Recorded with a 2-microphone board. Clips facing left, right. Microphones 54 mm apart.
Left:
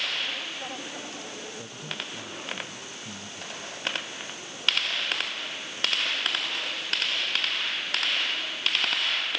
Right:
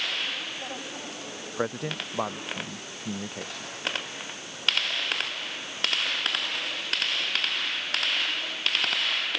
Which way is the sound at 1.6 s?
85° right.